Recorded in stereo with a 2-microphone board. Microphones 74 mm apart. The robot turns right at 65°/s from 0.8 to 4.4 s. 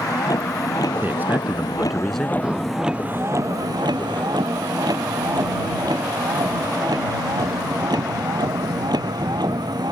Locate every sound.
0.0 s a vehicle: 60° left; by 9.9 s 70° right
1.0 s a man speaking: 65° right; by 2.3 s 20° left
2.4 s breathing: 10° right (ahead or behind); by 2.9 s 40° right (ahead or behind)